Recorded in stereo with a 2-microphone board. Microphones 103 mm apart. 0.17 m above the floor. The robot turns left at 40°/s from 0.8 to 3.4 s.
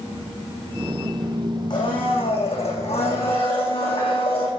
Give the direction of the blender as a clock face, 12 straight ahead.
8 o'clock.